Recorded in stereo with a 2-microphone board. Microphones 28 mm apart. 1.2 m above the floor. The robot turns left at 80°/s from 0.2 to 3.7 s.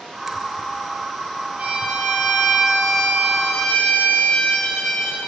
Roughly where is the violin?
Right.